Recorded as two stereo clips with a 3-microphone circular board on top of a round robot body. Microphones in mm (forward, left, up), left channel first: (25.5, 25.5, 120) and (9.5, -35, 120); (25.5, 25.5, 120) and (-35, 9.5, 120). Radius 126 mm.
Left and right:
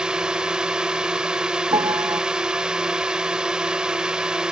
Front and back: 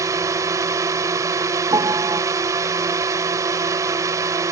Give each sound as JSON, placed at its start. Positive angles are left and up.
{"t": 0.0, "sound": "a drone", "azimuth_deg": 180}
{"t": 1.7, "sound": "a piano", "azimuth_deg": -130}